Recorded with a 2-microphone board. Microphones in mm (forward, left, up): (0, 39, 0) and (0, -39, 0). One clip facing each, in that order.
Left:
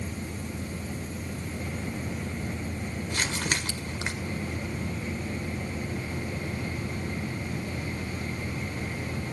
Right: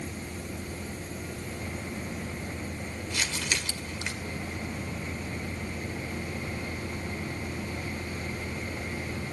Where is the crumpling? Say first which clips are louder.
Left 2 dB; 40° left (ahead or behind), 2 m.